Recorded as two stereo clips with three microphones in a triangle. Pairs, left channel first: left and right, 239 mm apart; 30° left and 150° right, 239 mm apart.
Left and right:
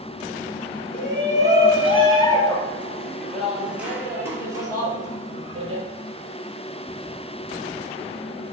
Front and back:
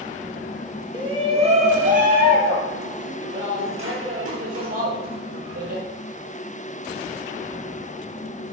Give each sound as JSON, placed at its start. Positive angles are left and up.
{"t": 0.9, "sound": "a shout", "azimuth_deg": 140, "distance_m": 3.5}